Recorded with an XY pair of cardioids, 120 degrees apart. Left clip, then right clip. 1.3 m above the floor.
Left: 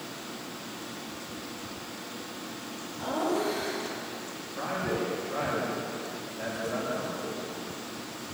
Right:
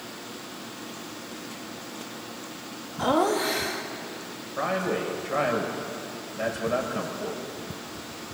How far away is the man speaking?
About 6 m.